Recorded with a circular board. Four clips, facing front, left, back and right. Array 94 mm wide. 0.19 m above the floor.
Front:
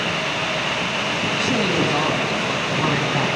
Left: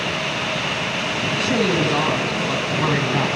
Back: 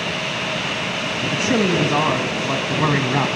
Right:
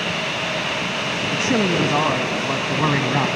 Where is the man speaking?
140° right, 1.0 m.